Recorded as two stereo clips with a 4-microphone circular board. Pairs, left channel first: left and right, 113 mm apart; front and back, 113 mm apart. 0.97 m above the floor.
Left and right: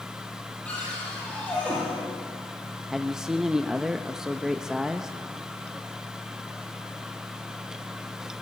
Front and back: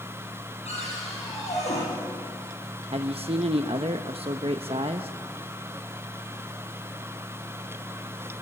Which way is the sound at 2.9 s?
175° right.